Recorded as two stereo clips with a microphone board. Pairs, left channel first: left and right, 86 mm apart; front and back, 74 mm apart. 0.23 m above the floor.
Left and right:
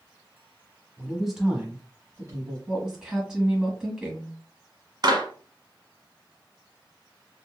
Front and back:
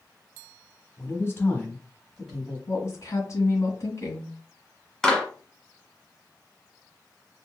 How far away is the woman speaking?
About 1.9 m.